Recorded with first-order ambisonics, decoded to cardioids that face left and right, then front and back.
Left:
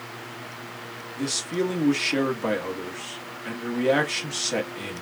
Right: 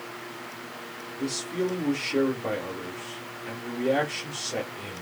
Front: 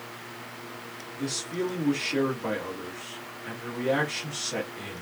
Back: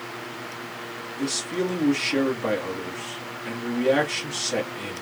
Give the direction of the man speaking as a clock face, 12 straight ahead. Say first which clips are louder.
Left 3 dB, back 4 dB; 8 o'clock.